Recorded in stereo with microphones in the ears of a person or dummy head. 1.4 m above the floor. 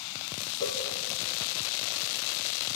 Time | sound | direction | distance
0.6 | a cowbell | 20° left (ahead or behind) | 4.5 m